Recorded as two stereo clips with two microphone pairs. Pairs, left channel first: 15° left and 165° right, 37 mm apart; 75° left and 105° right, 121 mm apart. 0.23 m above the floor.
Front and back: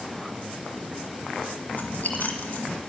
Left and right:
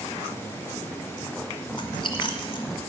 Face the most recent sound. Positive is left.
turn(degrees=40)